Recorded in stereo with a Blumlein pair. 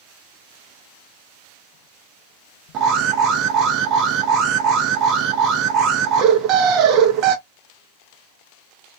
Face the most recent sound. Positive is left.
turn(degrees=-35)